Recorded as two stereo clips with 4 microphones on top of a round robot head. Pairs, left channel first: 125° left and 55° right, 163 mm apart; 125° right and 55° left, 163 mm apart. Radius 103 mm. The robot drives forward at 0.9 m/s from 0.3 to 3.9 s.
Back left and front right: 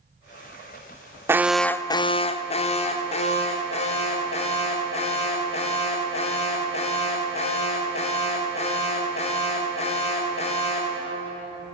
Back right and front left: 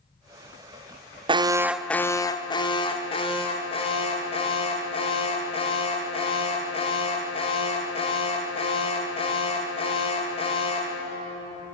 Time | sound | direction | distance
1.3 | an alarm | 15° left | 0.6 m